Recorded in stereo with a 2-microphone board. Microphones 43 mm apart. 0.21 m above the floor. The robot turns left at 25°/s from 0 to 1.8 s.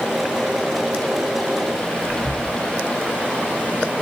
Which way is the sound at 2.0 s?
10° left (ahead or behind).